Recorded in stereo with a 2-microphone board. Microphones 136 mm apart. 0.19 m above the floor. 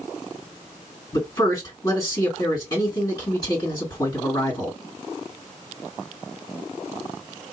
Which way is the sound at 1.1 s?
25° left (ahead or behind).